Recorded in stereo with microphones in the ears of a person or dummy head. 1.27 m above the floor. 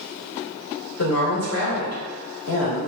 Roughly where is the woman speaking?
Left.